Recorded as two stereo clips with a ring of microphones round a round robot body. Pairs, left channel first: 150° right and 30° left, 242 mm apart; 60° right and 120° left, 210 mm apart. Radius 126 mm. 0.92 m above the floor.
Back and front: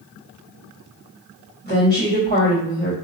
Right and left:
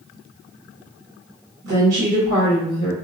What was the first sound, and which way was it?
A woman speaking, 80° left.